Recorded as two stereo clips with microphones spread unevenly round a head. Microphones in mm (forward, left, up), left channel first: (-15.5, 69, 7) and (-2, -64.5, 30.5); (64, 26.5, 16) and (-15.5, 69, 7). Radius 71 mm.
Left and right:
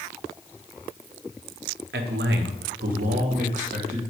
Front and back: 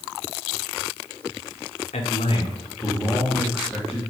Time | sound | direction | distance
1.9 | a man speaking | 65° right | 0.9 m